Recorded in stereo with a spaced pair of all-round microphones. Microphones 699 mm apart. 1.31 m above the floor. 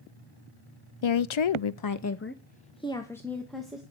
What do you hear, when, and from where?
1.0 s a woman speaking: 45° left (ahead or behind), 0.6 m; by 3.8 s centre (ahead or behind), 1.7 m